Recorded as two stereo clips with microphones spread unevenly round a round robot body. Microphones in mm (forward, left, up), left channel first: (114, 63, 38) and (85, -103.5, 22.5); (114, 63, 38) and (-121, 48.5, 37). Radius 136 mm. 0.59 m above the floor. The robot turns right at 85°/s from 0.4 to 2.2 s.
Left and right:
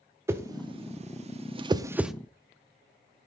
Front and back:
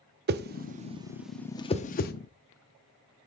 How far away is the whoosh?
About 0.5 m.